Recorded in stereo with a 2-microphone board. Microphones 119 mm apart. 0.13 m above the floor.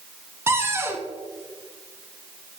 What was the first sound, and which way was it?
A cupboard door, 20° right (ahead or behind).